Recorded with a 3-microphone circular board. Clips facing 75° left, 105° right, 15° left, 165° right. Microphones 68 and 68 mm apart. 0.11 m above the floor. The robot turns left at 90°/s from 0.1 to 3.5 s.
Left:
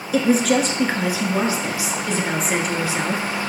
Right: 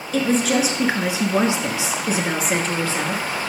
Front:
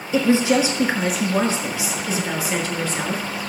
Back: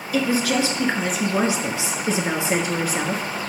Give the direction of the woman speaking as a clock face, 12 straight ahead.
12 o'clock.